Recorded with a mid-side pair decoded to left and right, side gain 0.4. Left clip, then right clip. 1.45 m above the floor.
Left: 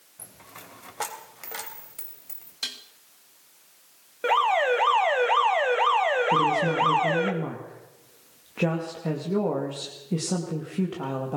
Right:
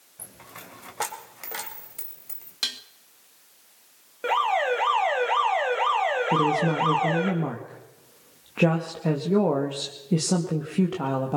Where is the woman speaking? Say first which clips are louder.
Left 1 dB; 35° right, 2.5 m.